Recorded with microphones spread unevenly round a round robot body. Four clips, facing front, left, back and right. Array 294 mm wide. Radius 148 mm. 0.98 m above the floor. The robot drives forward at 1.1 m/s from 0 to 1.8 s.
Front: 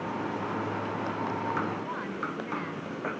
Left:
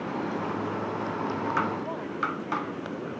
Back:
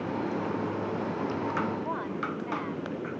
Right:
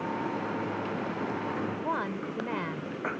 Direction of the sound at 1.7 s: 85° right.